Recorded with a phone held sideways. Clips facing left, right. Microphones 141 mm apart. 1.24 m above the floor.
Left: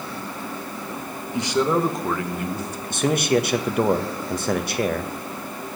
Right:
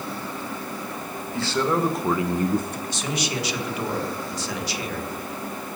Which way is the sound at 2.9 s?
55° left (ahead or behind).